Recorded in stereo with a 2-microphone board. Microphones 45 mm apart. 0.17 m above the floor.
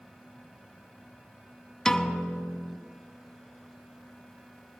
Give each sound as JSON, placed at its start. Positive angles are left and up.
{"t": 1.9, "sound": "a piano", "side_deg": 15, "distance_m": 0.5}